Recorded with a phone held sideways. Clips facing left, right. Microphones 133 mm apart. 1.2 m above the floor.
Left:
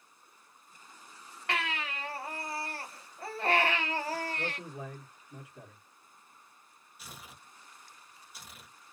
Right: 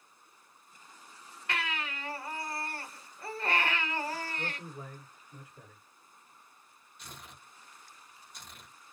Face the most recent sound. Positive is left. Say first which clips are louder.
# even
turn(degrees=5)  # may be behind; listen again after turning